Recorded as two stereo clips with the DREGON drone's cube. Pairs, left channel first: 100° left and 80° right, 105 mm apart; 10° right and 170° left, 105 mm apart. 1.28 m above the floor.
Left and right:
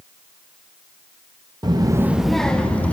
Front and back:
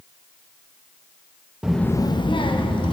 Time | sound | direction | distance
1.6 | a child speaking | 110° right | 0.7 m